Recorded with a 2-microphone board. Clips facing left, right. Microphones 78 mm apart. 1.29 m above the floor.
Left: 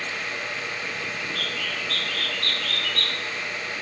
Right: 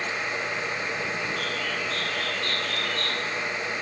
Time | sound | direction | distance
1.2 | a bird | 75° left (ahead or behind) | 3.5 m